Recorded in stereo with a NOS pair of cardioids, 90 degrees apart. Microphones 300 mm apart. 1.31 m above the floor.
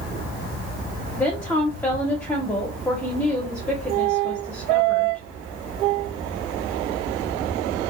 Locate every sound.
1.2 s a woman speaking: 5° left, 1.0 m